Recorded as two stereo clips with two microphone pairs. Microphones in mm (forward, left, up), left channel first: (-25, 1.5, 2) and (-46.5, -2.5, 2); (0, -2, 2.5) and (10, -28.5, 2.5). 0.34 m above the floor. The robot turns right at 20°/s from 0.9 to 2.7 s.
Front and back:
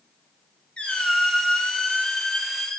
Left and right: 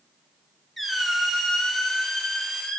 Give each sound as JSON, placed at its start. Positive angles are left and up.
{"t": 0.8, "sound": "a squeak", "azimuth_deg": 25, "distance_m": 0.6}